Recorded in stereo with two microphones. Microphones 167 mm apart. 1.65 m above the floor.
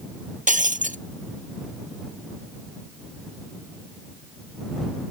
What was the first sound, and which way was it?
Breaking glass, 45° right (ahead or behind).